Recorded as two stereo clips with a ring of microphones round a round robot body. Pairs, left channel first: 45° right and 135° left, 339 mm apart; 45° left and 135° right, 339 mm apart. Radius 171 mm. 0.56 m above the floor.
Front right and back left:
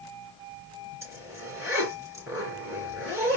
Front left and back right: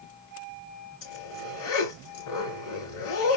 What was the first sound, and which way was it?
A zipper, 55° left.